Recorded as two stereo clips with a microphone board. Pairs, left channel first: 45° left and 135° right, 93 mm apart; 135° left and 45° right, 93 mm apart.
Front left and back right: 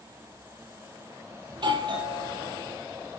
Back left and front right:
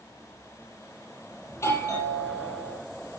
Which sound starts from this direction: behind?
A doorbell, at 1.5 s.